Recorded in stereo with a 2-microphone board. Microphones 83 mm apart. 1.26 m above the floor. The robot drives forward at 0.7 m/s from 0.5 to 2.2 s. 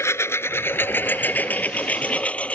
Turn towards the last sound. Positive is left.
turn(degrees=15)  # may be behind; listen again after turning